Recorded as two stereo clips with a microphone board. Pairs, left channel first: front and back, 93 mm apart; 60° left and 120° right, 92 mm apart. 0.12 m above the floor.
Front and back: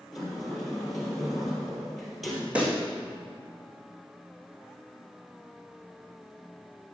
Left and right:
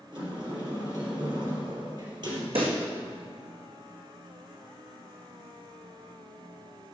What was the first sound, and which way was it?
A sliding door, 90° right.